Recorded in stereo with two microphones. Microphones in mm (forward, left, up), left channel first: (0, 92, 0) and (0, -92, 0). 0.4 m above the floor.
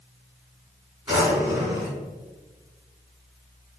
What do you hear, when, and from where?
1.1 s a drawer: 20° right (ahead or behind), 1.6 m